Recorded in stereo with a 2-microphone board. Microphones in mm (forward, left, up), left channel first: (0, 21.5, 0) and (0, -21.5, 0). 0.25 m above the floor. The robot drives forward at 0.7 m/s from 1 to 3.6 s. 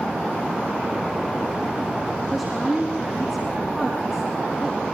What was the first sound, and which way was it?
A woman speaking, 5° right (ahead or behind).